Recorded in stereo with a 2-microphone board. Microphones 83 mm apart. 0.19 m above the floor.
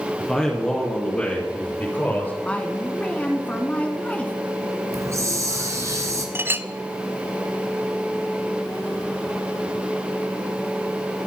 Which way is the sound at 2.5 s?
15° left (ahead or behind).